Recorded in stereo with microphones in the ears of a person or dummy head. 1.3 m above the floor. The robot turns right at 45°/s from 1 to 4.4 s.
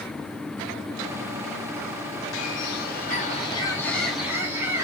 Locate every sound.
2.3 s a bird: 100° left, 1.2 m; by 4.8 s 165° right, 1.2 m